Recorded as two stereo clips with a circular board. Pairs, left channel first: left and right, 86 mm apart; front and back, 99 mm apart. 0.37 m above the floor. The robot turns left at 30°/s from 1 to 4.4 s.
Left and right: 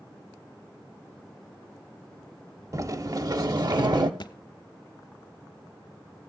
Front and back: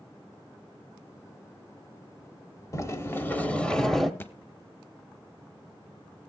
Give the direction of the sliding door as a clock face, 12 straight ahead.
2 o'clock.